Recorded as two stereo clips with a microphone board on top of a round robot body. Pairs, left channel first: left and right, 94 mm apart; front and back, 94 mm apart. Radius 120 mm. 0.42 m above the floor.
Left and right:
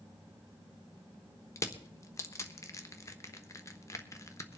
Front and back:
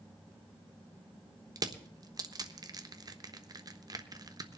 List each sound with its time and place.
1.6 s crushing: 140° left, 1.2 m